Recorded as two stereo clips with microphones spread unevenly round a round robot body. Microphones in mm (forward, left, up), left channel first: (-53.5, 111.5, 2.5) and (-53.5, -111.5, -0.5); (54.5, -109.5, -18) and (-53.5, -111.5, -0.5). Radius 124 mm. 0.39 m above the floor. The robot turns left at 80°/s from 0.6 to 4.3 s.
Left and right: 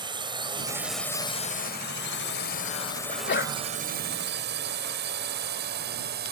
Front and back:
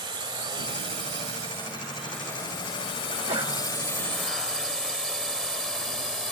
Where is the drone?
155° right; by 6.3 s 85° right.